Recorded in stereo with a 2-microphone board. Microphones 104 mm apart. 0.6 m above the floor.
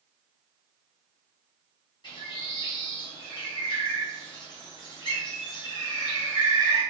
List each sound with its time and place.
2.0 s a bird: 45° left (ahead or behind), 1.1 m